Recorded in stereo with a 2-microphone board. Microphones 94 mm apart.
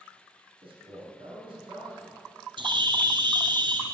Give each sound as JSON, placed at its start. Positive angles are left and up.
{"t": 0.6, "sound": "a man speaking", "side_deg": -75, "distance_m": 5.5}
{"t": 2.6, "sound": "a bird", "side_deg": -60, "distance_m": 1.6}